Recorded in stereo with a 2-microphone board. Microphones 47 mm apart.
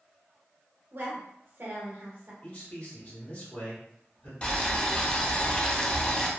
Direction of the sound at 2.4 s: 45° left (ahead or behind).